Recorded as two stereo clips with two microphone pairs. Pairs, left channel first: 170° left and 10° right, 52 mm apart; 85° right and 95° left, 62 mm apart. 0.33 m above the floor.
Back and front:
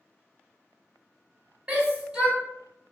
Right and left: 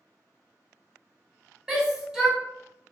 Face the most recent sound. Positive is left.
turn(degrees=30)